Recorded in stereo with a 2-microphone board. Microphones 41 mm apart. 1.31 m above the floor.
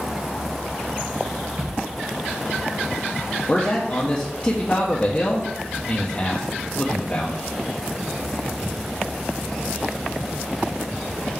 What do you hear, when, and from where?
1.6 s a thud: 55° right (ahead or behind), 3.5 m
3.5 s a man speaking: 30° left (ahead or behind), 0.9 m